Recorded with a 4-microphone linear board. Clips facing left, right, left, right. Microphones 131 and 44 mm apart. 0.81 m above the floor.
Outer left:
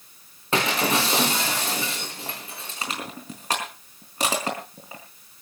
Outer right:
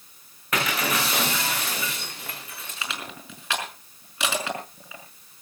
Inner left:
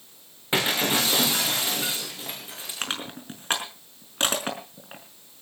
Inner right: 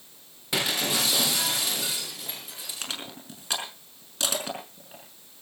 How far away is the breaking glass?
About 7 m.